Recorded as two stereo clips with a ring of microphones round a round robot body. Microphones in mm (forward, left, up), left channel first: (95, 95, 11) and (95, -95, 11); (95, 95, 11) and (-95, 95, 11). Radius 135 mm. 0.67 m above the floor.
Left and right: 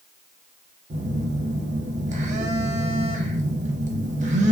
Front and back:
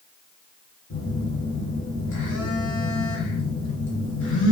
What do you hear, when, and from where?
0.9 s a phone buzzing: 35° right, 0.8 m